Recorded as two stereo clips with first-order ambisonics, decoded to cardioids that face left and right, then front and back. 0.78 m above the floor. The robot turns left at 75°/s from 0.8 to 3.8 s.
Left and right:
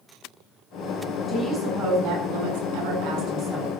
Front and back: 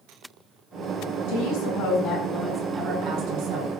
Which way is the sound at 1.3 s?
10° left.